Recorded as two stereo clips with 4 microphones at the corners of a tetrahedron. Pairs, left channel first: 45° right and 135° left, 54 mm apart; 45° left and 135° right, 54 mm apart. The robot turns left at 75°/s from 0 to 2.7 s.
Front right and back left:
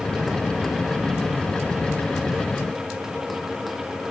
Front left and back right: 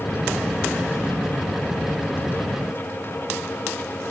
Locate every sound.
Only background noise.